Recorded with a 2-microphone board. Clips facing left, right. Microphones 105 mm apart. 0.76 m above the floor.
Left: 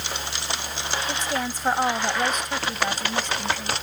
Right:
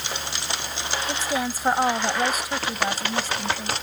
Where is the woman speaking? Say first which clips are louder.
Right 3 dB; 5° right (ahead or behind).